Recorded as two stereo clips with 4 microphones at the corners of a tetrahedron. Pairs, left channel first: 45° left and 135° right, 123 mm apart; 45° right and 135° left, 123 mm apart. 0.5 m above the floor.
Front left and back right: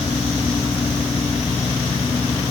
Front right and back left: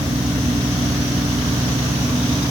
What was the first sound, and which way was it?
Only background noise.